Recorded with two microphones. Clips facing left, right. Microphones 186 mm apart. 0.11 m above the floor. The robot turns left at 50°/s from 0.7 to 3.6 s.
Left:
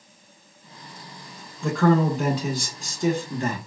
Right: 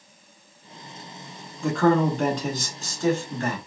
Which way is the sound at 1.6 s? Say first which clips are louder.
Even; 5° right (ahead or behind).